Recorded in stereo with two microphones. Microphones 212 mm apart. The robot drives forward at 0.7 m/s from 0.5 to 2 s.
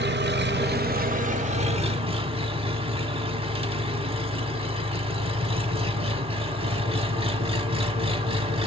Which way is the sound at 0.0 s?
50° right (ahead or behind).